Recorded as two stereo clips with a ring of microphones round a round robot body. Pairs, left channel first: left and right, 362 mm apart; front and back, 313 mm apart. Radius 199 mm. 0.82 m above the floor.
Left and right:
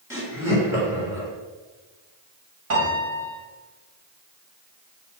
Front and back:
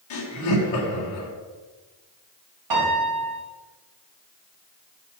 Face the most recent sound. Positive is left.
turn(degrees=-145)